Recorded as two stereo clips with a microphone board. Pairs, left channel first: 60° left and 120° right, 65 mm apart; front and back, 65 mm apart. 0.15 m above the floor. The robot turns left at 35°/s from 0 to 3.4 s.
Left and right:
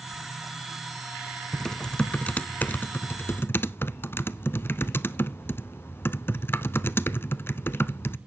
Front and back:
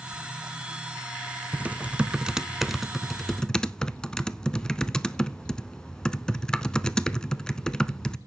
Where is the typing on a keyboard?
135° left, 0.5 m; by 8.2 s 70° left, 0.5 m.